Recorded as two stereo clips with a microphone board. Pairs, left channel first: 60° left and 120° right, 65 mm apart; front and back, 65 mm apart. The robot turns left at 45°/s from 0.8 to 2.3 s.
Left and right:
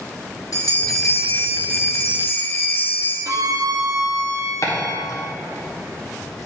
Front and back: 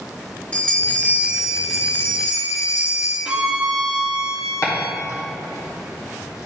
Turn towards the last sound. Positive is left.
turn(degrees=30)